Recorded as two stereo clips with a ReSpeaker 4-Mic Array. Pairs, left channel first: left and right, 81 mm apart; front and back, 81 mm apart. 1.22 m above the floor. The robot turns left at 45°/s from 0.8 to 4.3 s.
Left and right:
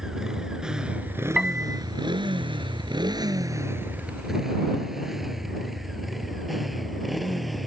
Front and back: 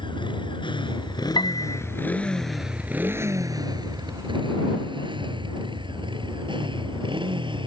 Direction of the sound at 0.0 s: 5° right.